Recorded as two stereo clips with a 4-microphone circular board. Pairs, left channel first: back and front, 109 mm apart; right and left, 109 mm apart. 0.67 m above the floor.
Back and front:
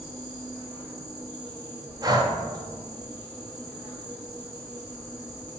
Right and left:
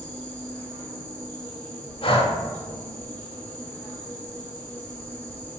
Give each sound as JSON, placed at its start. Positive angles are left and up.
{"t": 0.0, "sound": "an insect", "azimuth_deg": -25, "distance_m": 1.3}
{"t": 2.0, "sound": "breathing", "azimuth_deg": -55, "distance_m": 0.6}